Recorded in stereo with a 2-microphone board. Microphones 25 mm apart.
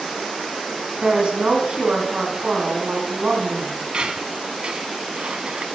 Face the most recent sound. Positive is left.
turn(degrees=-40)  # may be behind; listen again after turning